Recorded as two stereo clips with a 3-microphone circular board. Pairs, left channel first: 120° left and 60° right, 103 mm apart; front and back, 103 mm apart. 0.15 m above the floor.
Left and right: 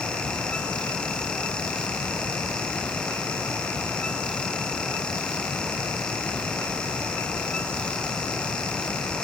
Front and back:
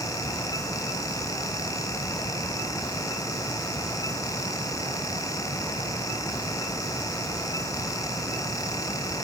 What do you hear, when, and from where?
Only background noise.